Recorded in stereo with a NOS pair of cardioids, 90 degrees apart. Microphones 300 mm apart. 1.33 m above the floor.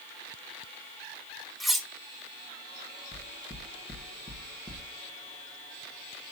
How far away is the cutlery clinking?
About 1.2 m.